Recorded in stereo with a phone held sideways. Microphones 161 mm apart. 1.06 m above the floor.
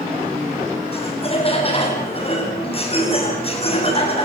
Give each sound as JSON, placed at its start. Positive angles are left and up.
{"t": 0.9, "sound": "laughter", "side_deg": 35, "distance_m": 8.5}